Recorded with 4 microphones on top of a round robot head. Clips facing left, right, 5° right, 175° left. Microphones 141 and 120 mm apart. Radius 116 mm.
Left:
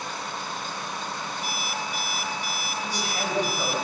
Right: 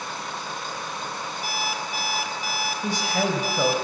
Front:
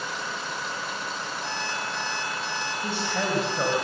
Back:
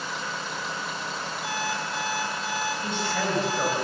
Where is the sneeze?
No sneeze in this recording.